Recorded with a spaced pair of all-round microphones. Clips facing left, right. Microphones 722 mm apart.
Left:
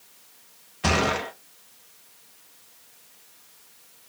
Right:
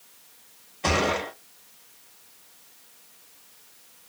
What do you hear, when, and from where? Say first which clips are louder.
0.8 s a gunshot: even; 45° left (ahead or behind), 0.8 m